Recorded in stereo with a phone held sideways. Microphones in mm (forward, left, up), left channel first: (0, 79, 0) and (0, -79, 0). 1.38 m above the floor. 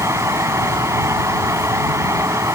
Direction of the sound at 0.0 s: 15° right (ahead or behind).